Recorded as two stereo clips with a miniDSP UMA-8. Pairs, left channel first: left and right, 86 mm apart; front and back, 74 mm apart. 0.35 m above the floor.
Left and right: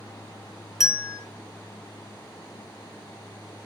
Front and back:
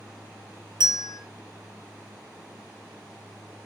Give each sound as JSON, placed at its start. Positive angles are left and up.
{"t": 0.8, "sound": "a bell", "azimuth_deg": -175, "distance_m": 0.8}